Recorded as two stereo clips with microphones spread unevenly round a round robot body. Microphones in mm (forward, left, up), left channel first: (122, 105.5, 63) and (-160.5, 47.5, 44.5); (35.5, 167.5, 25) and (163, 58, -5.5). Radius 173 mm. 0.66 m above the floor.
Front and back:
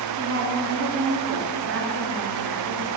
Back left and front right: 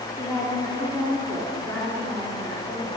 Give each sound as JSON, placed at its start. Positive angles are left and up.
{"t": 0.2, "sound": "a woman speaking", "azimuth_deg": -135, "distance_m": 1.8}